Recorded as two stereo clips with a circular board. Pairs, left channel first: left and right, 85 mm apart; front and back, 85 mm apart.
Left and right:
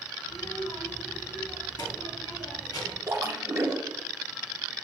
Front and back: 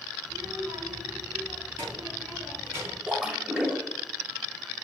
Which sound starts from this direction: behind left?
A child speaking, at 0.2 s.